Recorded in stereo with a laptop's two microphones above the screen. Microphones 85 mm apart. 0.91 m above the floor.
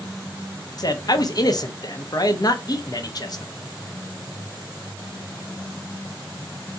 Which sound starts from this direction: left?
A man speaking, at 0.8 s.